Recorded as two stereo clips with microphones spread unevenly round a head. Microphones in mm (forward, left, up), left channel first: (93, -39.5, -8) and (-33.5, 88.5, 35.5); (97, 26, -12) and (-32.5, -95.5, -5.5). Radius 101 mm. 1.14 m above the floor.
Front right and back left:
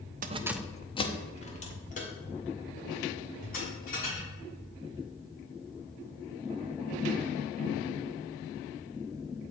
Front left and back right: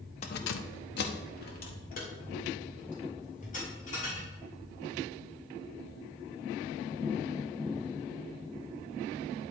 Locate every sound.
0.2 s keys jangling: 100° left, 0.6 m; by 4.3 s 5° right, 5.5 m